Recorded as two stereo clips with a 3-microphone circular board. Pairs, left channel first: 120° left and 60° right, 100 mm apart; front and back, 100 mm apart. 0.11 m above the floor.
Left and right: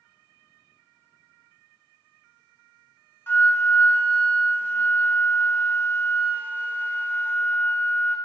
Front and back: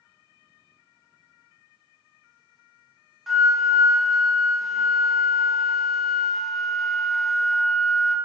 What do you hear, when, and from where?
3.3 s a flute: 90° left, 0.5 m